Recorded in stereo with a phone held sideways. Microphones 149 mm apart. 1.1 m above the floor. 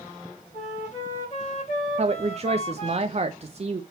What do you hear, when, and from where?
0.5 s a flute: 50° left (ahead or behind), 5 m
2.0 s a woman speaking: 45° right (ahead or behind), 0.7 m